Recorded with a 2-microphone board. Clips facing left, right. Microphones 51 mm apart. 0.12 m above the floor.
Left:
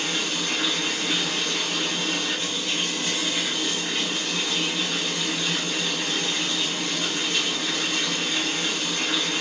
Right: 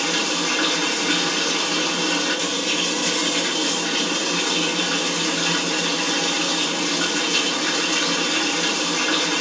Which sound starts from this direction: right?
Running water, at 0.0 s.